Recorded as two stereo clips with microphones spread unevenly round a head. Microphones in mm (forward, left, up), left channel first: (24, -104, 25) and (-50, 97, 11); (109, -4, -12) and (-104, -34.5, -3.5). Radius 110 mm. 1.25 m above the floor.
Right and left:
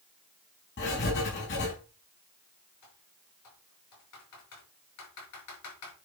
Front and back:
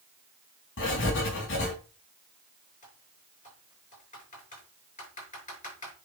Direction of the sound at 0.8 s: 25° right.